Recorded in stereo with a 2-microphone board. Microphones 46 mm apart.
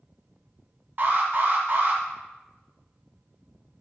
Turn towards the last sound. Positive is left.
turn(degrees=-45)  # may be behind; listen again after turning